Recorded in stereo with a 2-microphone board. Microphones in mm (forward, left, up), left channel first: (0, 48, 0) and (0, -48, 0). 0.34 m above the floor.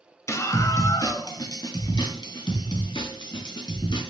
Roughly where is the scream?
Left.